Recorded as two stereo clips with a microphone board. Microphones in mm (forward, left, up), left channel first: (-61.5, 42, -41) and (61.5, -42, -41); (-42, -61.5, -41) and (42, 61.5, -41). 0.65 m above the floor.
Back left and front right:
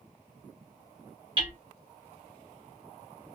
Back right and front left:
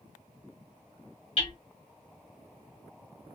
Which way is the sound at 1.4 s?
85° right.